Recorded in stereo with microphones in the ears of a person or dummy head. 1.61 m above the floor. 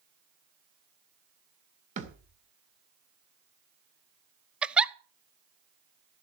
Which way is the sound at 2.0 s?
45° right (ahead or behind).